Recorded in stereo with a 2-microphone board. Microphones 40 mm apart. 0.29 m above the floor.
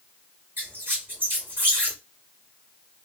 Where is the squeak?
50° right (ahead or behind), 2.0 m.